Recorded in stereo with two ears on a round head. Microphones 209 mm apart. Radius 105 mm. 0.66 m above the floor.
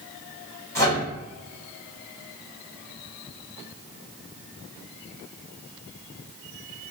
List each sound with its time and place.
0.8 s a microwave: 15° left (ahead or behind), 1.6 m